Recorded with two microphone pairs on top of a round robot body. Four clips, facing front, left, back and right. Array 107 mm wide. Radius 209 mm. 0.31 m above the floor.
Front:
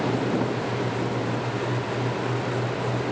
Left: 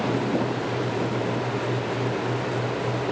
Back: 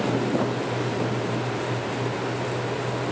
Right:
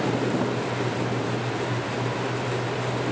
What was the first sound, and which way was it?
Only background noise.